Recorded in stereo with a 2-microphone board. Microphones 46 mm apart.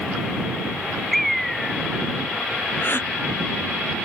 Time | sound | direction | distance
1.1 | a bird | 5° left (ahead or behind) | ?
2.8 | a gasp | 50° left (ahead or behind) | ?